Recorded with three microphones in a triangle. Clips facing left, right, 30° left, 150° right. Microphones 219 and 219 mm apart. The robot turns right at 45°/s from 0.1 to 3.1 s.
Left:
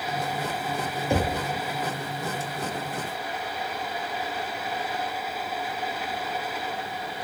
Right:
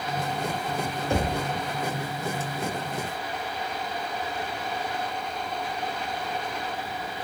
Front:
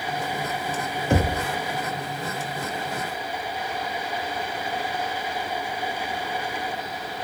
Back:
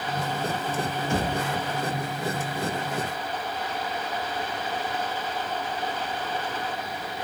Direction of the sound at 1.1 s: 20° left.